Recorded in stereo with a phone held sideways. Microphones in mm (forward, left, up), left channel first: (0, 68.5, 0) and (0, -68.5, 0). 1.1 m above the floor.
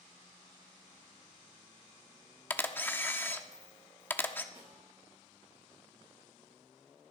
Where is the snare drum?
45° right (ahead or behind), 6 m.